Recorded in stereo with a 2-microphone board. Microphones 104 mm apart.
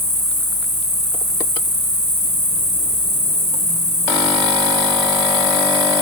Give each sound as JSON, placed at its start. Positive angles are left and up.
{"t": 0.0, "sound": "an insect", "side_deg": 65, "distance_m": 1.1}